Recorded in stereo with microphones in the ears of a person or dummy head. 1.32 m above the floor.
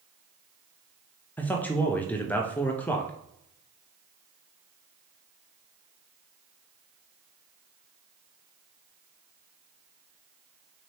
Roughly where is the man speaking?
Centre.